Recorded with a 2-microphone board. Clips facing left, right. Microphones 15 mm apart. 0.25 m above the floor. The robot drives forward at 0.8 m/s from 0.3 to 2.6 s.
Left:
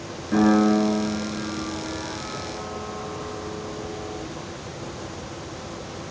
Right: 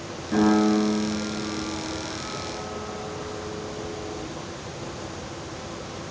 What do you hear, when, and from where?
0.3 s a piano: 15° left (ahead or behind), 4 m; by 4.2 s 30° left (ahead or behind), 2.5 m